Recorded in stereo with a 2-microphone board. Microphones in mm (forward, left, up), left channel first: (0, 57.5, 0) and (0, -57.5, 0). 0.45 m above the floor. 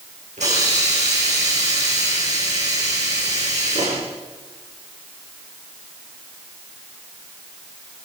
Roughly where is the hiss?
Right.